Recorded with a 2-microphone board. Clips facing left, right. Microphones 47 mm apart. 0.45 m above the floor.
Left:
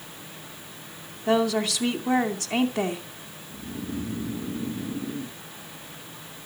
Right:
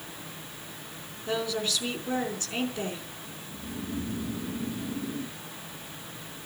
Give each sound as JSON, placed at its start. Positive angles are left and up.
{"t": 1.3, "sound": "a woman speaking", "side_deg": 75, "distance_m": 3.0}
{"t": 3.5, "sound": "snoring", "side_deg": 35, "distance_m": 4.5}